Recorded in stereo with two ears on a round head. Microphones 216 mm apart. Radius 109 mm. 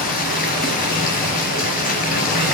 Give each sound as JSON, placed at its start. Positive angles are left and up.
{"t": 0.0, "sound": "running water", "side_deg": 35, "distance_m": 3.0}